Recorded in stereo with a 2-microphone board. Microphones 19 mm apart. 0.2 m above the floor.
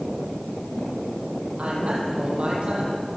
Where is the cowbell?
I don't hear a cowbell.